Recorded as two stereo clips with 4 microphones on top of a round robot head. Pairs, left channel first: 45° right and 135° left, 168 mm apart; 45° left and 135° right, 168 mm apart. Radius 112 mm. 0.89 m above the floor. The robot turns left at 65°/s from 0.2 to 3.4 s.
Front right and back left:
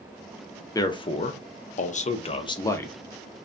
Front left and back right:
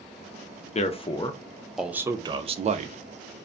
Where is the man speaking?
20° left, 0.5 m; by 3.0 s 125° right, 0.5 m.